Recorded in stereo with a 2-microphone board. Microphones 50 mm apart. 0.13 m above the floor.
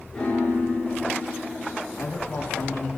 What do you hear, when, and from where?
0.1 s a piano: 20° left (ahead or behind), 7 m
2.0 s a man speaking: 45° left (ahead or behind), 4 m